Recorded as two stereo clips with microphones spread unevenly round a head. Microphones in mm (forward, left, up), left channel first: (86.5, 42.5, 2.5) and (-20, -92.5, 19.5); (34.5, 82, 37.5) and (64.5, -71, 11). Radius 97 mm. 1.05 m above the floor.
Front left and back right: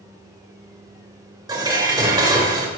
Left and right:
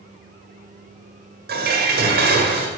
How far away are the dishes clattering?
About 3 m.